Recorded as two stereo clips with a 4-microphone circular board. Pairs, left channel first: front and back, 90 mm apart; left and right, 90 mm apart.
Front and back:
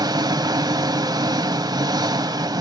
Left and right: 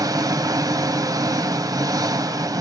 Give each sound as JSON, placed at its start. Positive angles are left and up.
{"t": 0.0, "sound": "an engine running", "azimuth_deg": -140, "distance_m": 0.8}